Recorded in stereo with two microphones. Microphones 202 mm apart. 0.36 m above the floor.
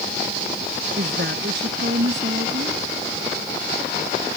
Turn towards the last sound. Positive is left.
turn(degrees=-60)  # may be behind; listen again after turning